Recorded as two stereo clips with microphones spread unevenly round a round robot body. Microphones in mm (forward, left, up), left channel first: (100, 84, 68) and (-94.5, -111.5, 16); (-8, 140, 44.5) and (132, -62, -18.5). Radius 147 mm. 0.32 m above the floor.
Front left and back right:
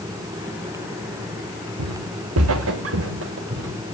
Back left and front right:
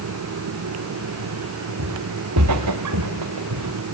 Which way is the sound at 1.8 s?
100° right.